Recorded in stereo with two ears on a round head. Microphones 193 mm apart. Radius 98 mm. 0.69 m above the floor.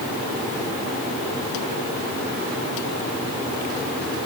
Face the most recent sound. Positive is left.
No sound to turn to.